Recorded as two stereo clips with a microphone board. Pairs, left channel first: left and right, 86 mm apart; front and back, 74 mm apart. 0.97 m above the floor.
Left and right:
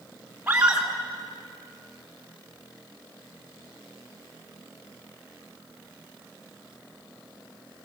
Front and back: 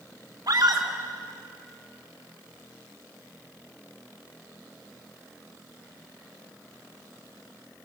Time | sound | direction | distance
0.5 | a scream | 165° right | 3.5 m